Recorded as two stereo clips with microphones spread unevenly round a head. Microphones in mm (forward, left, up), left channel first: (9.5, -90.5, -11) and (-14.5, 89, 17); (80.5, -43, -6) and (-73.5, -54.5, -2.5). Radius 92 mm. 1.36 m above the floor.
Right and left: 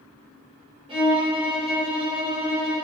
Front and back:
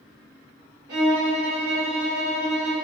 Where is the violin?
160° left, 1.1 m.